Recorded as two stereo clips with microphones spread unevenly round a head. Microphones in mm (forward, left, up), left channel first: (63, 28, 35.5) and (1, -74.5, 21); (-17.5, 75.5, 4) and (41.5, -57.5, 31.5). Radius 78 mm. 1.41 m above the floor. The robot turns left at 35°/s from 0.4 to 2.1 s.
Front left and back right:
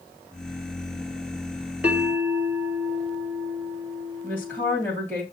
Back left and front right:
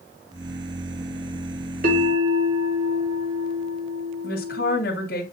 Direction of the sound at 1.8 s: 40° right.